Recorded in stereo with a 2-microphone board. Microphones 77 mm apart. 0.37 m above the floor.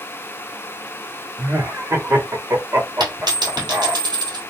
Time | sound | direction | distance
1.4 | laughter | 35° right (ahead or behind) | 1.0 m
3.0 | a dropped coin | 80° right | 1.6 m